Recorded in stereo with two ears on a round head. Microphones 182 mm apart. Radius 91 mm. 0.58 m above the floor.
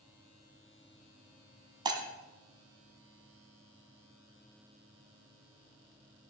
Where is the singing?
I don't hear singing.